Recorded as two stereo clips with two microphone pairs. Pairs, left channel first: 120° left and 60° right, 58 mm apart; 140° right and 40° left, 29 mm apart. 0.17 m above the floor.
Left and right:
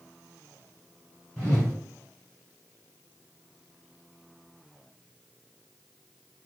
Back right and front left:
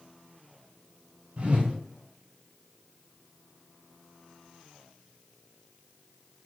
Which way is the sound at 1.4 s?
50° left.